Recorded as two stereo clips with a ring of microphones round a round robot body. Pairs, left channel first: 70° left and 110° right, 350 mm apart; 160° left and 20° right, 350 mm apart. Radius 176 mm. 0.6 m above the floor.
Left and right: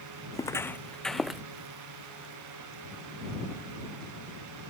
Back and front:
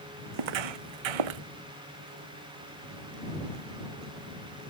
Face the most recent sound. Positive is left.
turn(degrees=-25)